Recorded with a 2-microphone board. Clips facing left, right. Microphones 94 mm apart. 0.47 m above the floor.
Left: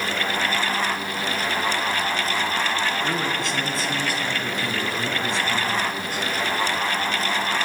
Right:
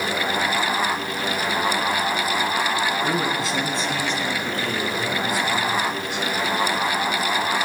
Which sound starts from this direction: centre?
A man speaking, at 3.0 s.